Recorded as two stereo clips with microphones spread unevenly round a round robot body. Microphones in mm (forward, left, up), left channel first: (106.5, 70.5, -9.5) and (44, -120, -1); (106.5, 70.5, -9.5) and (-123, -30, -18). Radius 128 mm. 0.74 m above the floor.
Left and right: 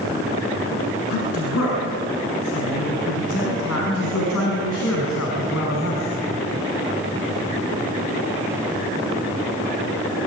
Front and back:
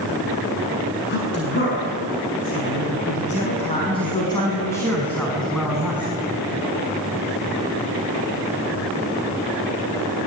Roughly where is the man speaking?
Left.